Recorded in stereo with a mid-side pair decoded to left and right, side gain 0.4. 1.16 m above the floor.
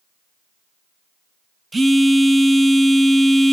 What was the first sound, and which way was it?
A phone buzzing, 25° right.